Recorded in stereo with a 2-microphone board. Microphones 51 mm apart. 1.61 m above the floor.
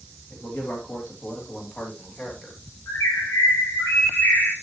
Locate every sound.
0.3 s a man speaking: 45° left (ahead or behind), 3 m; by 2.6 s 15° left (ahead or behind), 2.5 m
2.9 s a bird: 70° left (ahead or behind), 3.5 m